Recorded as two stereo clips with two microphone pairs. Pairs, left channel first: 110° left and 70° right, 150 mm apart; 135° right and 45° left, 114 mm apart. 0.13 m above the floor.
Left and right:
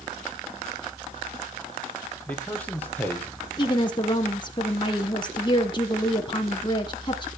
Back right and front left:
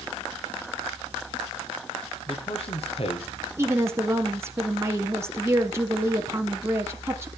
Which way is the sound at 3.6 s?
95° left.